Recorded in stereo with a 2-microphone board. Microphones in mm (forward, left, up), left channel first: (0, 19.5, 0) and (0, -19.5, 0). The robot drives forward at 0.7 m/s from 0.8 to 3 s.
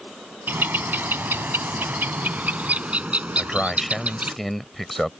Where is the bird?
65° right (ahead or behind); by 4.4 s 40° right (ahead or behind).